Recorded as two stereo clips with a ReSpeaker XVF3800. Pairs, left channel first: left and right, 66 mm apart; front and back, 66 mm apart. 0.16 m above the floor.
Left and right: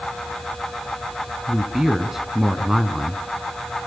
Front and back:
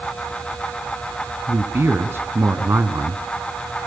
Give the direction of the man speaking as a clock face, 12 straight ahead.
6 o'clock.